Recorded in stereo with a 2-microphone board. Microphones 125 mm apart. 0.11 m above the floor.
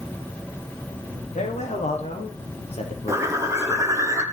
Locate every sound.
1.4 s a man speaking: 70° left (ahead or behind), 5 m; by 4.1 s 50° left (ahead or behind), 4 m
3.1 s a bird: 25° right (ahead or behind), 2 m